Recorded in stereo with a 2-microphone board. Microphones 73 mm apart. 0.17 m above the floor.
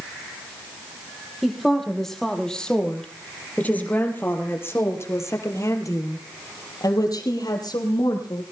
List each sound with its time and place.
1.4 s a woman speaking: centre (ahead or behind), 5.5 m; by 8.4 s 75° left (ahead or behind), 5.5 m